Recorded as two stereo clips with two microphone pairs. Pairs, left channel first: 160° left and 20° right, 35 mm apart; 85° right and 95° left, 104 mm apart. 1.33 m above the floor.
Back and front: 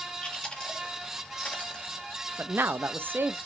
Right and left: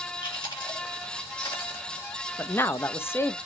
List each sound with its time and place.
0.2 s chewing: 135° right, 6.5 m
2.4 s a man speaking: 20° right, 1.1 m